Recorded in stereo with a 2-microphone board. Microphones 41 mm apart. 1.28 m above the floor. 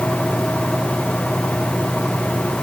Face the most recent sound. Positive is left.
No sound to turn to.